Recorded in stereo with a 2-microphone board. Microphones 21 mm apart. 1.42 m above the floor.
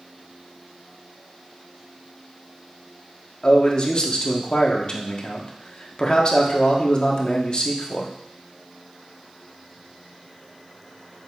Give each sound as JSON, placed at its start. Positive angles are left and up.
{"t": 3.4, "sound": "a man speaking", "side_deg": 45, "distance_m": 1.3}